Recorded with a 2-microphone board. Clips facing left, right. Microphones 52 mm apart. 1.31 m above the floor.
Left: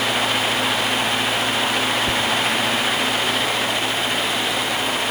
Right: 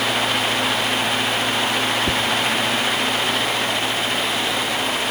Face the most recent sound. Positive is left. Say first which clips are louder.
# even
turn(degrees=-65)  # may be behind; listen again after turning